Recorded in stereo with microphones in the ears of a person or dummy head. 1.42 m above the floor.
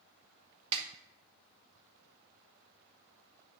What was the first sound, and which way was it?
A snare drum, 30° right (ahead or behind).